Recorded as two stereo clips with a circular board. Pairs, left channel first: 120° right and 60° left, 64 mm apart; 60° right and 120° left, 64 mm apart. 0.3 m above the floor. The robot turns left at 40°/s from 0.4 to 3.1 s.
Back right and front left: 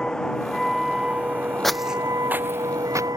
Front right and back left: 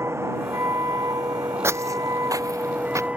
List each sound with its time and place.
0.0 s a vehicle: 160° left; by 3.2 s 50° left
1.6 s footsteps: 155° left; by 3.1 s 85° left